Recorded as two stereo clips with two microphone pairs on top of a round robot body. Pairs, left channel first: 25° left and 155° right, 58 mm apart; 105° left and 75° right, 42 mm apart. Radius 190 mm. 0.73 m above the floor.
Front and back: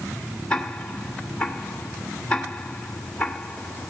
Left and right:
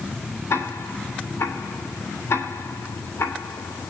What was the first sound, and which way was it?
Ticking, 100° left.